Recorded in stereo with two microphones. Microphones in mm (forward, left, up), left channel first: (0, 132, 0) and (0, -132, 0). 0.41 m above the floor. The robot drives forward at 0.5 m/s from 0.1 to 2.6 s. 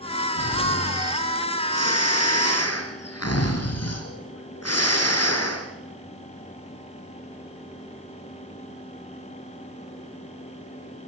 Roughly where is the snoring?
Left.